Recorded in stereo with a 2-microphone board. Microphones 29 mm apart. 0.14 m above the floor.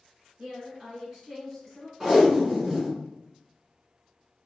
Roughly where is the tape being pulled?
Centre.